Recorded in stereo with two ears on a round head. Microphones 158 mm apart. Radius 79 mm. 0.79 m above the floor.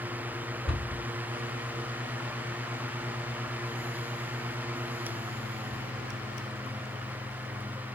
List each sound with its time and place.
0.7 s a cupboard door: centre (ahead or behind), 1.8 m